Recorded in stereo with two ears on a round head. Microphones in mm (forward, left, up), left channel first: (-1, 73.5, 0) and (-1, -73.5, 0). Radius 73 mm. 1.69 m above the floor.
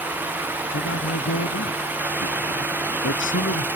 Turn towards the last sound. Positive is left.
turn(degrees=85)